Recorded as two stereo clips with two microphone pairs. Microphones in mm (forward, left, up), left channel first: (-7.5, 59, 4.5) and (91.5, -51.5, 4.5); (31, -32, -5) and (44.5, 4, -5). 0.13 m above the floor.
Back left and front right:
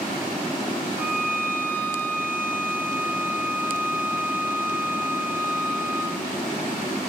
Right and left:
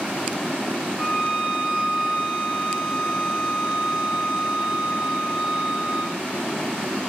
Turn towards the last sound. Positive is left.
turn(degrees=155)